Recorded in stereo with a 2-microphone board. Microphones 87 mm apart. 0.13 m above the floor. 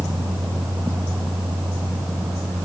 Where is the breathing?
No breathing in this recording.